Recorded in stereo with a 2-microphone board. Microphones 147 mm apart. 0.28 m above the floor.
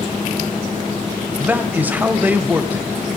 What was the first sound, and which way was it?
A man speaking, 15° right (ahead or behind).